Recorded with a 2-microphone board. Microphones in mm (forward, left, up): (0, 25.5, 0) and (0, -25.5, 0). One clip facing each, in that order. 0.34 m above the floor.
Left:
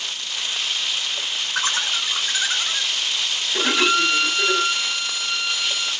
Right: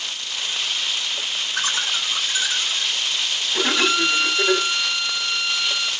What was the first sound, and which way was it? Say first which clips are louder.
Laughter: left 1 dB; 60° left (ahead or behind).